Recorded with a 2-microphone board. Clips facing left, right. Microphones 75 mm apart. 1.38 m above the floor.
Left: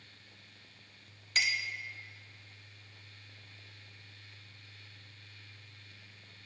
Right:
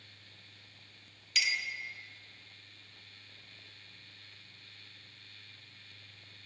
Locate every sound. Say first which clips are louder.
1.4 s a clink: left 2 dB; 35° left (ahead or behind), 1.0 m